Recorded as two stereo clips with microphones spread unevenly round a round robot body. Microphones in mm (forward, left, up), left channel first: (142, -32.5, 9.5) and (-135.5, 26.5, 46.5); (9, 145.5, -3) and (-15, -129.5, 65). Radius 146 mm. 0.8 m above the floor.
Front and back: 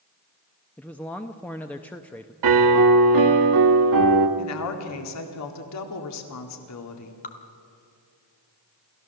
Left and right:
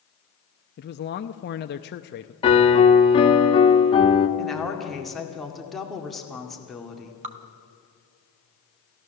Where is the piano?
150° left, 1.5 m.